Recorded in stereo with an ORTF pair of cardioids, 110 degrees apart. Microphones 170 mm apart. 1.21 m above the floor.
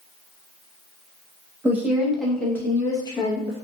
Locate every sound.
1.6 s a woman speaking: 15° right, 1.3 m; by 3.7 s 40° left, 1.3 m